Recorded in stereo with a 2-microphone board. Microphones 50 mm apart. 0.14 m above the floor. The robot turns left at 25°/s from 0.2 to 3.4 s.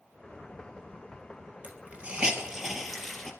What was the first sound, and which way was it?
A hiss, 30° right (ahead or behind).